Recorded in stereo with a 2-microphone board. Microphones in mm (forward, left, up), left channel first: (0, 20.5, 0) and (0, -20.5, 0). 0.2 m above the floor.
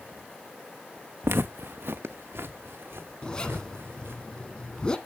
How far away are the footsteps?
About 0.7 m.